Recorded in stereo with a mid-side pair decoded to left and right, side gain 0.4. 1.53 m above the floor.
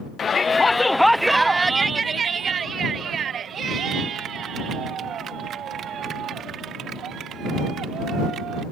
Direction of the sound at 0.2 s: 50° left.